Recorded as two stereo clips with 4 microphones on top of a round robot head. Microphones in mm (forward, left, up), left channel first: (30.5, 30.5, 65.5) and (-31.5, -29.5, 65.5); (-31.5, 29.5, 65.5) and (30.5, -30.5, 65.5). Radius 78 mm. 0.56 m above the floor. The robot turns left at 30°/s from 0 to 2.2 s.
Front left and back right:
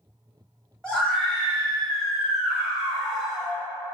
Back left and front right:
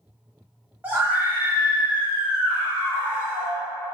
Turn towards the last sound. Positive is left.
turn(degrees=-50)